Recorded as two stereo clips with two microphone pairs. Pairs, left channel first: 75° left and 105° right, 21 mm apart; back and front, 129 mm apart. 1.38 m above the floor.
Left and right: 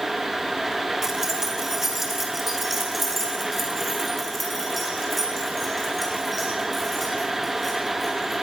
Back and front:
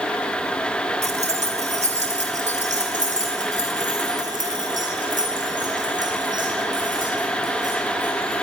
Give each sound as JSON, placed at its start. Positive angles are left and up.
{"t": 1.0, "sound": "keys jangling", "azimuth_deg": -35, "distance_m": 3.0}